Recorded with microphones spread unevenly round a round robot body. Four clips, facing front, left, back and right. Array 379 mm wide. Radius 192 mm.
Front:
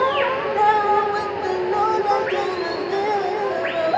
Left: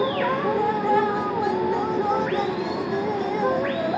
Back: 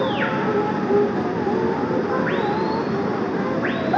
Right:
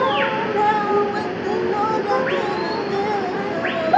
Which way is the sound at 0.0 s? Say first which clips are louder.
Right 3 dB, front 2 dB; 175° right.